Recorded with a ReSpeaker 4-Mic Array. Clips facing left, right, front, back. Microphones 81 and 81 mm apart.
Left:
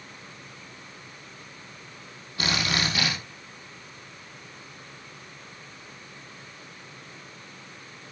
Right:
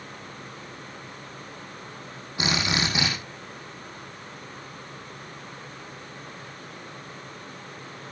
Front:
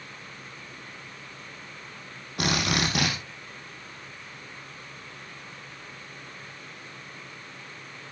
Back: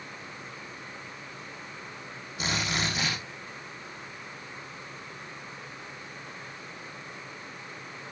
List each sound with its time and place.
2.4 s a drill: 20° right, 6.5 m